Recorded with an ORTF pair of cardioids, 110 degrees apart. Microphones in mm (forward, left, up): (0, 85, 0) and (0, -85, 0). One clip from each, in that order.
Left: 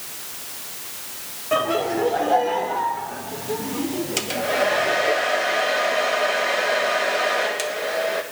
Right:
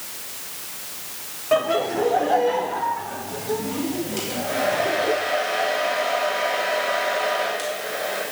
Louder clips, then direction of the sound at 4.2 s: Left 4 dB; 55° left.